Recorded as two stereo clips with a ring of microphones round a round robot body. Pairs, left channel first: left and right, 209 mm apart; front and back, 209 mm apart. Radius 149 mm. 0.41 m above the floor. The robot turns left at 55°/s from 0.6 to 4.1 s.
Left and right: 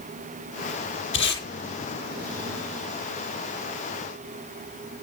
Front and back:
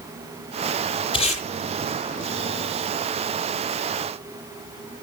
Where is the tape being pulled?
70° left, 9 m; by 1.4 s 50° left, 9 m.